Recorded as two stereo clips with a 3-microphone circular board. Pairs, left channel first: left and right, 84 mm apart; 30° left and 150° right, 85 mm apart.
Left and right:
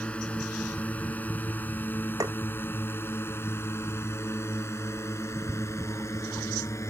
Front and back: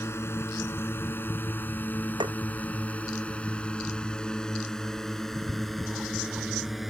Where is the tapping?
135° right.